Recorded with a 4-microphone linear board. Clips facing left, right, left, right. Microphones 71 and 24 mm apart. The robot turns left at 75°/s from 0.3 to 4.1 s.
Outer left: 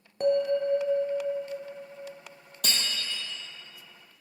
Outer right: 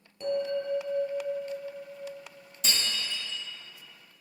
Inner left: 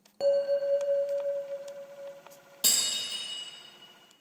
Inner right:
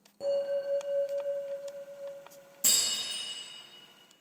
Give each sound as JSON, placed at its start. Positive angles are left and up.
{"t": 0.2, "sound": "a bell", "azimuth_deg": 75, "distance_m": 0.7}
{"t": 2.6, "sound": "breaking glass", "side_deg": 65, "distance_m": 1.8}